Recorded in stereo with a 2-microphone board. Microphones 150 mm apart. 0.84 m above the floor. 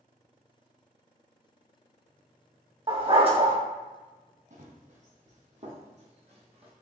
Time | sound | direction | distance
2.9 | a dog barking | 40° right (ahead or behind) | 1.0 m
4.5 | running footsteps | 55° right (ahead or behind) | 1.4 m